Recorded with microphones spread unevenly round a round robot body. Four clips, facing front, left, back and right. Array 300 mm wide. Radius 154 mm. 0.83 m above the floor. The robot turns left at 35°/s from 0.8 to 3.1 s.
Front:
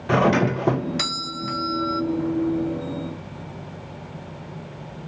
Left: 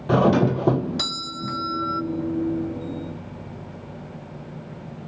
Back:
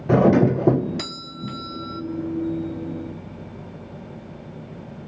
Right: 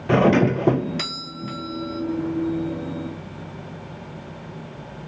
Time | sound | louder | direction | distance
0.1 | a doorbell | right 1 dB, back 3 dB | 155° right | 0.7 m